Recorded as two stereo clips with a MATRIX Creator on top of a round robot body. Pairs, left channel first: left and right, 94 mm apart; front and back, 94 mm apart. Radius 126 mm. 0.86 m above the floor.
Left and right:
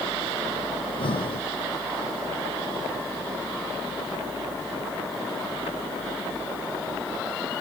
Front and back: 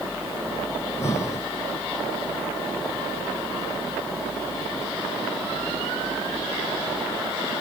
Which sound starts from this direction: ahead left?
Breathing, at 0.8 s.